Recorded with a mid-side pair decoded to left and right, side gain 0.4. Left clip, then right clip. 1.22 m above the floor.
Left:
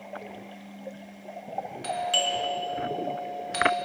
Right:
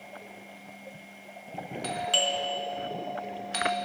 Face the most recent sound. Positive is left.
turn(degrees=-5)